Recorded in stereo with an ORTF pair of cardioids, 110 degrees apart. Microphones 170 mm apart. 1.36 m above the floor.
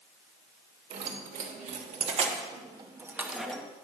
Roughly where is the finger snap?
I don't hear a finger snap.